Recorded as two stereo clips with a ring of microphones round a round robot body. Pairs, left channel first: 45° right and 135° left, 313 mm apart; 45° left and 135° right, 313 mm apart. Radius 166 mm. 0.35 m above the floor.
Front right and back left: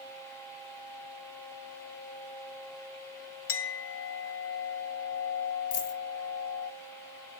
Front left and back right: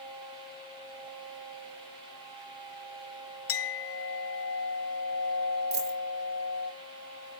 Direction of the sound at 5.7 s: 75° right.